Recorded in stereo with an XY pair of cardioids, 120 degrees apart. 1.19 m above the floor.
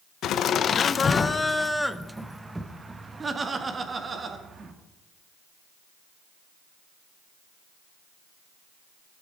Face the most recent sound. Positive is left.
turn(degrees=-35)